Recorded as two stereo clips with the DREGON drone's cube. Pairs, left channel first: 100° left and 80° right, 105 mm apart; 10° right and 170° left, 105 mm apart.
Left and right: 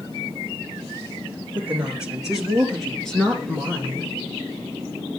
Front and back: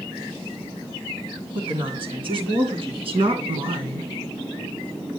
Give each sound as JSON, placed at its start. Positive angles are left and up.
{"t": 1.6, "sound": "a woman speaking", "azimuth_deg": -155, "distance_m": 3.0}